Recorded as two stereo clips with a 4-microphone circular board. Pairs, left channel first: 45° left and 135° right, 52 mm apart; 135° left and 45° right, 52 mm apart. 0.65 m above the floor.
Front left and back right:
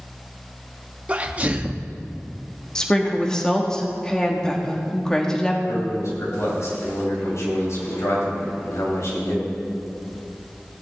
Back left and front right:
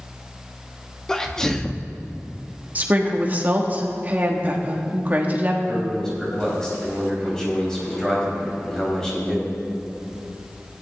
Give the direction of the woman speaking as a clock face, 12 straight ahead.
1 o'clock.